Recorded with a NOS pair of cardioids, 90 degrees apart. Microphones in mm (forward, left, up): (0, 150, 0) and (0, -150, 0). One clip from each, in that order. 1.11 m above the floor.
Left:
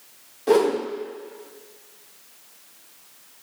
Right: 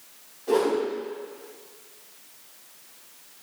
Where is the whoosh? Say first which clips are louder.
Left 4 dB; 65° left, 0.8 m.